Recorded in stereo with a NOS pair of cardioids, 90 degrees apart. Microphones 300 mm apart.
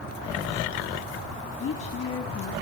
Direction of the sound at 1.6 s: 55° left.